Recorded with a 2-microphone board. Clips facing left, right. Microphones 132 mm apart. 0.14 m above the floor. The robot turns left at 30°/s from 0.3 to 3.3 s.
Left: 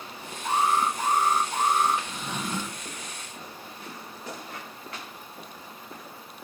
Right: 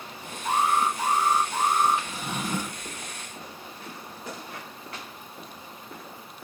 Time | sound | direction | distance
0.4 | an alarm | 150° left | 2.5 m
2.1 | a drawer | 5° right (ahead or behind) | 0.7 m